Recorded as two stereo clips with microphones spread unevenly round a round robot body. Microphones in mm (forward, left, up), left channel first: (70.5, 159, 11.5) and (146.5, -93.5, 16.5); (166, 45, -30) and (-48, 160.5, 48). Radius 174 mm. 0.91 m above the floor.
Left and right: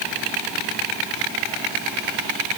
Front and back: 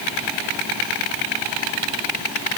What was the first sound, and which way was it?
Only background noise.